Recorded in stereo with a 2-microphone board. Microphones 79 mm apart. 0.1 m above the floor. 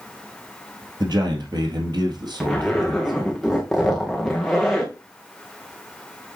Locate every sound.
1.0 s a man speaking: 60° right (ahead or behind), 2 m
2.4 s a zipper: centre (ahead or behind), 2.5 m